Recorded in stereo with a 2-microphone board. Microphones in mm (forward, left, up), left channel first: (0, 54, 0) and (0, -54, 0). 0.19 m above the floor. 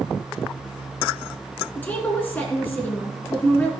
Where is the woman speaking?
15° left (ahead or behind), 1.9 m.